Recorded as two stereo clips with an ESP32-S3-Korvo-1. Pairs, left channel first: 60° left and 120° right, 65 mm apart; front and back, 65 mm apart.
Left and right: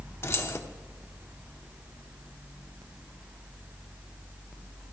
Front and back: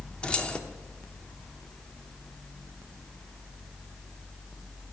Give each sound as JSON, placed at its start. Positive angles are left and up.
{"t": 0.2, "sound": "keys jangling", "azimuth_deg": 70, "distance_m": 0.7}